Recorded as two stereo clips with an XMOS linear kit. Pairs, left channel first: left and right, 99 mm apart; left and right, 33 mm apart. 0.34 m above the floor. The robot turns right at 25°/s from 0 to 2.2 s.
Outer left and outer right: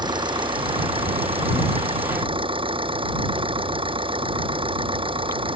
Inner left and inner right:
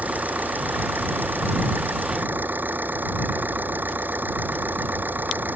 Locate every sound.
0.0 s an engine running: 125° right; by 5.6 s 70° right